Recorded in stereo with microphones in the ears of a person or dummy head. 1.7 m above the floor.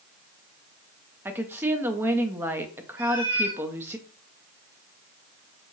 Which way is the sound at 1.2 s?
10° right (ahead or behind).